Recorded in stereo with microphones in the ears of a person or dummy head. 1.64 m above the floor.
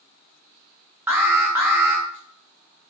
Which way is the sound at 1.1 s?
15° right (ahead or behind).